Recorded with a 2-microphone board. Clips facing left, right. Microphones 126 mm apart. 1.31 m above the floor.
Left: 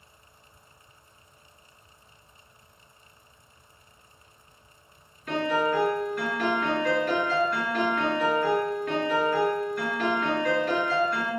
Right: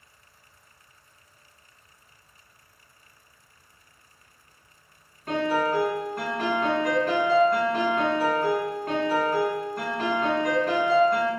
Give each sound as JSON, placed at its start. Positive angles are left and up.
{"t": 5.3, "sound": "a piano", "side_deg": -50, "distance_m": 1.7}